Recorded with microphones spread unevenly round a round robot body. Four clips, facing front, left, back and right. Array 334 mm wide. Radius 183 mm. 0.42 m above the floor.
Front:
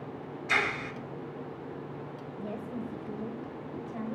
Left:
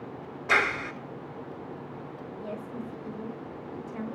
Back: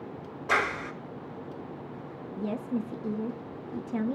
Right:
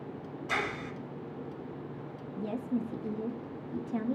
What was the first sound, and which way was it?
A clap, 125° left.